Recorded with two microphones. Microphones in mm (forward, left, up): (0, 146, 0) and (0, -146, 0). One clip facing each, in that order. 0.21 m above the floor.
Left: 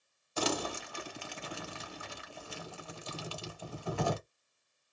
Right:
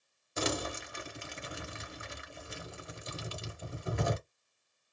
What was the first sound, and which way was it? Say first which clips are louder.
Crumpling: left 1 dB; 20° right (ahead or behind).